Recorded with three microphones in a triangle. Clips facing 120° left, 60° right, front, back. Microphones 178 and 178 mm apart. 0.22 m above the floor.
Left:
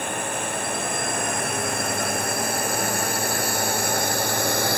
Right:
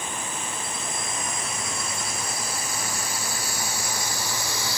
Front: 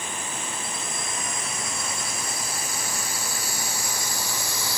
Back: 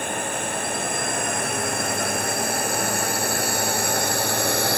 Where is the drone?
150° left.